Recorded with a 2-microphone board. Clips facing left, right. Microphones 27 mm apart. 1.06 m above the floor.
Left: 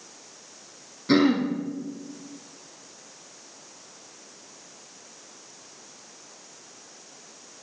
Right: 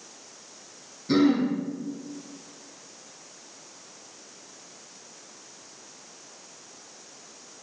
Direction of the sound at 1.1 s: 40° left (ahead or behind).